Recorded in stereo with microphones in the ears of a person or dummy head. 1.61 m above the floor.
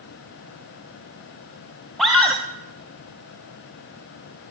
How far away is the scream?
About 1.0 m.